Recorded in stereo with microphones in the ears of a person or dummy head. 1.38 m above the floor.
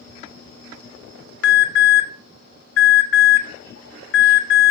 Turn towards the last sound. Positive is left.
turn(degrees=70)  # may be behind; listen again after turning